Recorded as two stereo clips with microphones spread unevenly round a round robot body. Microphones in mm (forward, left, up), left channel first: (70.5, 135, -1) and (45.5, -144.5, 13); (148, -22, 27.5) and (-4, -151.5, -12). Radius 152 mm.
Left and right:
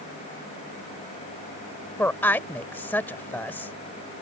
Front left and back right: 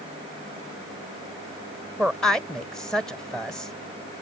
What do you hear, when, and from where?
2.0 s a woman speaking: 150° left